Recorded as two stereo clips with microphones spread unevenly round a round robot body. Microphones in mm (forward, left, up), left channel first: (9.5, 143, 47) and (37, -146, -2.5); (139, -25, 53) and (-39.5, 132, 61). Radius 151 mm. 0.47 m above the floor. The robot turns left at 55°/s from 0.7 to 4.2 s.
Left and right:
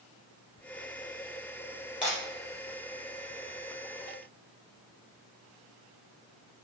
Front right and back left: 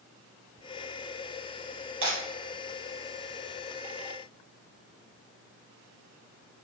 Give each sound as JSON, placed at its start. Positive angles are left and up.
{"t": 2.0, "sound": "breaking glass", "azimuth_deg": -170, "distance_m": 4.0}